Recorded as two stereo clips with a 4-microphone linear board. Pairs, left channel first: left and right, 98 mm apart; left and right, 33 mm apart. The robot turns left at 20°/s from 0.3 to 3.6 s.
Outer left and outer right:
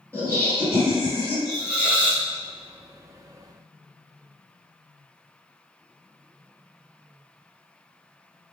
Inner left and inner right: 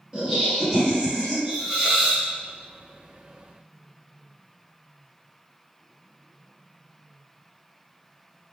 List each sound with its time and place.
0.1 s laughter: 25° right (ahead or behind), 1.8 m; by 1.4 s 20° right (ahead or behind), 1.8 m
1.4 s a hiss: 5° right (ahead or behind), 1.3 m; by 2.2 s 15° right (ahead or behind), 1.3 m